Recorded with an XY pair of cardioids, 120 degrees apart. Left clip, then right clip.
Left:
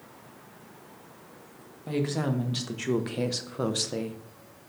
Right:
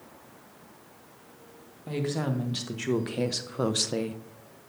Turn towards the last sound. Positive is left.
turn(degrees=-30)